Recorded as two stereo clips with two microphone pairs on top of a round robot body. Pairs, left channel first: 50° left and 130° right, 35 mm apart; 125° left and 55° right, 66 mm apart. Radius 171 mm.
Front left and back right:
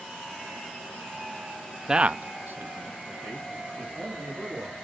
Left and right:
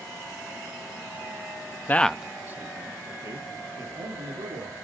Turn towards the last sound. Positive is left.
turn(degrees=-90)